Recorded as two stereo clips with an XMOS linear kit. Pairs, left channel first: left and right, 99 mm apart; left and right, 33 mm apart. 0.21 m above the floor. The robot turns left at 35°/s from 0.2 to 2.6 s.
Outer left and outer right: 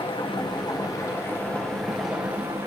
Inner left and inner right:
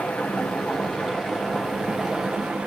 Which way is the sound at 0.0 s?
60° left.